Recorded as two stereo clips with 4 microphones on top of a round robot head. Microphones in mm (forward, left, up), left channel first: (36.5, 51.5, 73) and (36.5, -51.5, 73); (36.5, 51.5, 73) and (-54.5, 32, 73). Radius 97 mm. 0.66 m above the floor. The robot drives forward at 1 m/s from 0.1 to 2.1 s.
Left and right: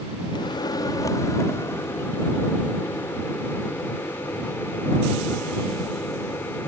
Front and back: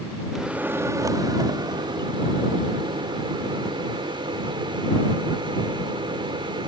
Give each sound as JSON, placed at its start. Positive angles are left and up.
{"t": 0.3, "sound": "a microwave", "azimuth_deg": 105}